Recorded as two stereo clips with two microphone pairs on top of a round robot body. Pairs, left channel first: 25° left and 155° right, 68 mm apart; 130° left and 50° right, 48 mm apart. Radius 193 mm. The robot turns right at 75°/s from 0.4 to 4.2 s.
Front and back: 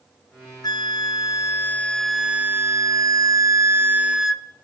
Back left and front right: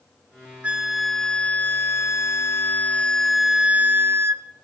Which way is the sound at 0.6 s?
10° left.